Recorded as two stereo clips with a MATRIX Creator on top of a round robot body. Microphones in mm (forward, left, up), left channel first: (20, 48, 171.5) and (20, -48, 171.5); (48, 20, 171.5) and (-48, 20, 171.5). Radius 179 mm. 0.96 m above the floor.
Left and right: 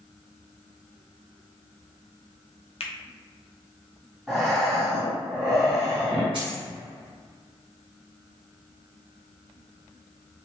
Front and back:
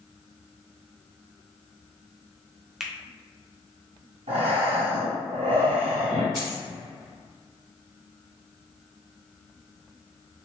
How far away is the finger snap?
About 0.9 m.